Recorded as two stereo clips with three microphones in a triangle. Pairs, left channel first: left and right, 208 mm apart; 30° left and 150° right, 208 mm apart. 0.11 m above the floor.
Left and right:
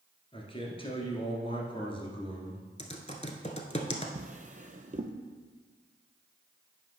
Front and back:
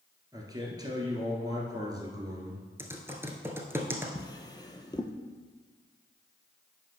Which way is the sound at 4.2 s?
40° right.